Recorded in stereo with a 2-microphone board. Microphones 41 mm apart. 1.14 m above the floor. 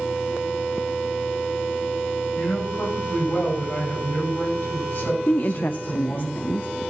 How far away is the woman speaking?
About 0.6 m.